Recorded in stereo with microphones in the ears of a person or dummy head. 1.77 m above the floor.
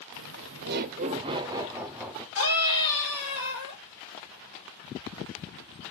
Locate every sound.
0.1 s laughter: 75° right (ahead or behind), 0.7 m; by 2.2 s 5° left (ahead or behind), 1.0 m
2.4 s a scream: 80° left, 6 m